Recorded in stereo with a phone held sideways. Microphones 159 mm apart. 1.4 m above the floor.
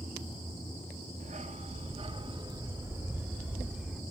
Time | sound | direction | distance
1.2 | a dog barking | 50° right (ahead or behind) | 1.2 m